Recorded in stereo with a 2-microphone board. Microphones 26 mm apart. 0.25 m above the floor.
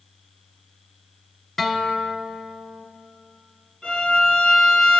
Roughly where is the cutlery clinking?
No cutlery clinking in this recording.